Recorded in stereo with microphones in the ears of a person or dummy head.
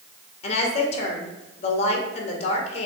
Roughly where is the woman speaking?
Left.